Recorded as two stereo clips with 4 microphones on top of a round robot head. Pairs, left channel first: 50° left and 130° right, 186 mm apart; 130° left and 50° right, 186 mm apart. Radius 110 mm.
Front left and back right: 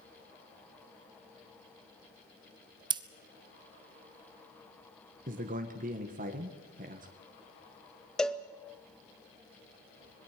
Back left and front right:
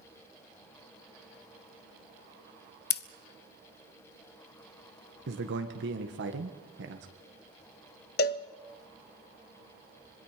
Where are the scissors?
165° left, 0.8 m.